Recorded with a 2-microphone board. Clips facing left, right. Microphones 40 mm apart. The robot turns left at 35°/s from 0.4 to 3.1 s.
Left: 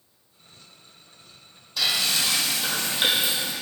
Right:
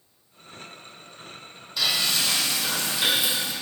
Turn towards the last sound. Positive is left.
turn(degrees=130)